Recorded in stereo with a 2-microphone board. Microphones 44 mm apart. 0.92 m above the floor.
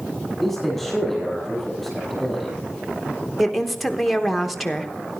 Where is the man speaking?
Centre (ahead or behind), 7 m.